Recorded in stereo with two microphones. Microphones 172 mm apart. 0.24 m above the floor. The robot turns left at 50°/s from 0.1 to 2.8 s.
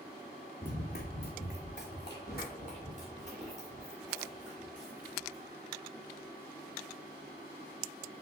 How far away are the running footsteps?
About 1.1 m.